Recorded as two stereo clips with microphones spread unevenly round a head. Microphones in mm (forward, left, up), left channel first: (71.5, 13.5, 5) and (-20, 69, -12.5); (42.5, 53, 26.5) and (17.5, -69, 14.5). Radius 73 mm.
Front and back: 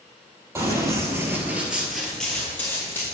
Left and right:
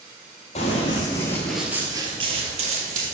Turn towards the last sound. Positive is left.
turn(degrees=-95)